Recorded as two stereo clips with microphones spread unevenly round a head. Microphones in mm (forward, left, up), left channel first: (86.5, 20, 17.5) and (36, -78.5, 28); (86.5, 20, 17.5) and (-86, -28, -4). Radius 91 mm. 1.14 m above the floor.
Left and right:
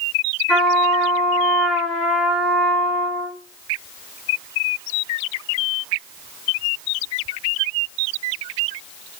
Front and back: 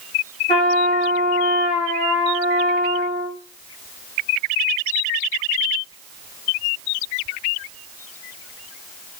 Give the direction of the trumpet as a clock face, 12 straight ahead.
1 o'clock.